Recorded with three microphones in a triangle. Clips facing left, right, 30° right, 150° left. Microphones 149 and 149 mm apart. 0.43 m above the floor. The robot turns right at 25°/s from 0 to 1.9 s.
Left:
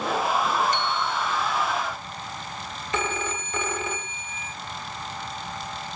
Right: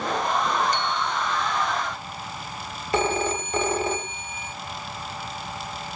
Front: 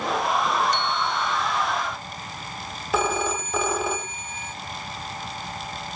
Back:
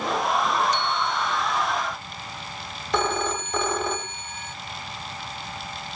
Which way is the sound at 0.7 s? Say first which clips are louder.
Even, even; 45° right.